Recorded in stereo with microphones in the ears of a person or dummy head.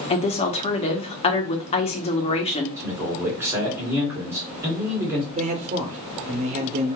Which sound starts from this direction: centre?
A man speaking, at 2.8 s.